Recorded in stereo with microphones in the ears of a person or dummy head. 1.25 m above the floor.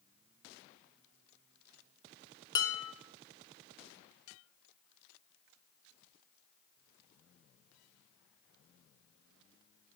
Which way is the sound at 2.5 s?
20° left (ahead or behind).